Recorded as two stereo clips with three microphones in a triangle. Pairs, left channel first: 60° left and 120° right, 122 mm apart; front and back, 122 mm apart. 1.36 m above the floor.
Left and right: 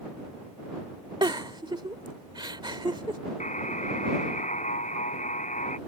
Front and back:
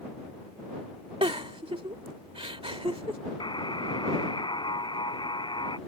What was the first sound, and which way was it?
A giggle, 160° right.